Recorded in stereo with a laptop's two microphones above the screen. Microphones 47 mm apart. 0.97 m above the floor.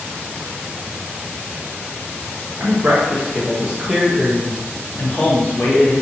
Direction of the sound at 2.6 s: 45° right (ahead or behind).